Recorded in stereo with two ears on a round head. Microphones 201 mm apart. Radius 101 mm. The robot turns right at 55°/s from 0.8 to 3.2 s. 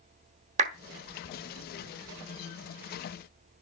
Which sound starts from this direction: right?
A clap, at 0.6 s.